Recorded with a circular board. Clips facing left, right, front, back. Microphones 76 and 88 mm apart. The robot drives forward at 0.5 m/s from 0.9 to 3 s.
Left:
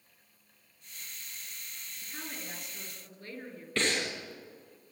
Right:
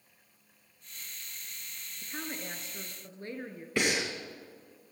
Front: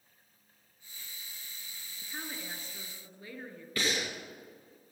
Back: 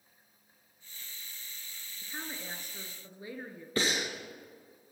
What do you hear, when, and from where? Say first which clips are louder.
2.0 s a woman speaking: right 4 dB, even; 95° right, 1.5 m; by 3.7 s 125° right, 1.6 m
3.8 s breathing: right 1 dB, back 2 dB; 155° right, 2.0 m